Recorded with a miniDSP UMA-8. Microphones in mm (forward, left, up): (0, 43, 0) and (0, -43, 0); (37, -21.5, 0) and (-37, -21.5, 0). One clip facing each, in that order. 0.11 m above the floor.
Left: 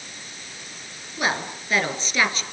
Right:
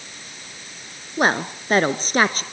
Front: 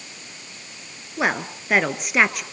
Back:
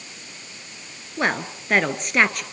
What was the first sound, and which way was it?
A woman speaking, 85° right.